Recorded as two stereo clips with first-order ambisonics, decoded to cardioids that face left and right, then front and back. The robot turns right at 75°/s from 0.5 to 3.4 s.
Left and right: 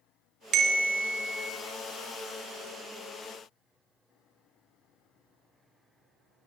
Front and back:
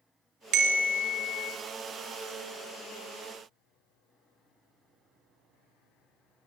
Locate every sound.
0.5 s a bell: 140° right, 1.0 m; by 1.5 s 65° right, 1.0 m